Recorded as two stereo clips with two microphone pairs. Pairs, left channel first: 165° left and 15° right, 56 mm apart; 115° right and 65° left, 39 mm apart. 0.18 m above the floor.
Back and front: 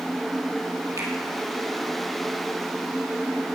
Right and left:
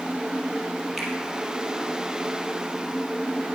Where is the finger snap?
25° right, 3.5 m.